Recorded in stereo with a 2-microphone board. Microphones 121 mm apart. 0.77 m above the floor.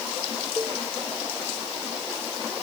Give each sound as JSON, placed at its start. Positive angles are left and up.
{"t": 0.6, "sound": "a cowbell", "side_deg": -20}